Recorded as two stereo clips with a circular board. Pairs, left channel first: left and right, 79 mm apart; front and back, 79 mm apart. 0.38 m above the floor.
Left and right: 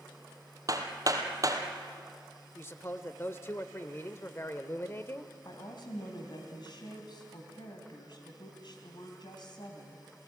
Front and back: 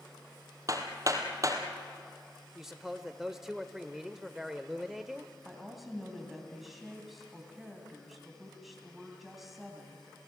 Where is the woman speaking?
95° left, 3 m.